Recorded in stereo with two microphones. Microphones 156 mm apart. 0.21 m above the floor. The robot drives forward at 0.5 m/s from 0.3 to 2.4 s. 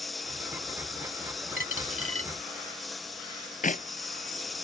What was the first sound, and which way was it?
A lawn mower, centre (ahead or behind).